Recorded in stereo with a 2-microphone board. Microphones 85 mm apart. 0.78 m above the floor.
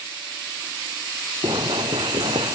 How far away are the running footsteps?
About 1.2 m.